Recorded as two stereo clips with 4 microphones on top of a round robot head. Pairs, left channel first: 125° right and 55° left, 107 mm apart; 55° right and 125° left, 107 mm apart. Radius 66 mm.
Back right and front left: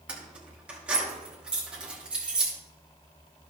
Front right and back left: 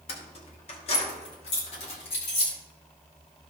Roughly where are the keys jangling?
Ahead right.